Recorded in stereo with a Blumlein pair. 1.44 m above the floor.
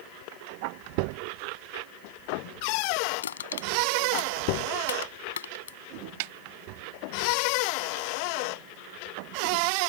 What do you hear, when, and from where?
3.2 s crushing: 65° left
6.2 s a snare drum: 50° right